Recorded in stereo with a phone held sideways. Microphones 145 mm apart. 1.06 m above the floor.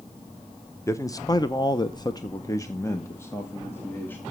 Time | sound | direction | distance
0.9 | a man speaking | 20° left (ahead or behind) | 0.8 m